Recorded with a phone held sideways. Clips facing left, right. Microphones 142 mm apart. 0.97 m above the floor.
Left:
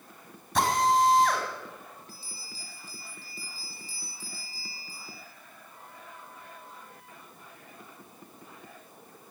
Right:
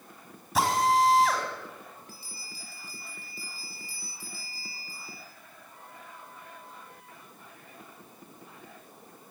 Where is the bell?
10° right (ahead or behind), 9.5 m.